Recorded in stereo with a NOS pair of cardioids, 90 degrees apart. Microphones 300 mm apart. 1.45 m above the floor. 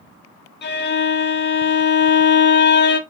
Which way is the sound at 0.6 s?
40° left.